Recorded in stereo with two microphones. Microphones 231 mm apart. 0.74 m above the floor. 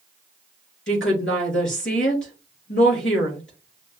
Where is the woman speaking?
55° left (ahead or behind), 2.5 m.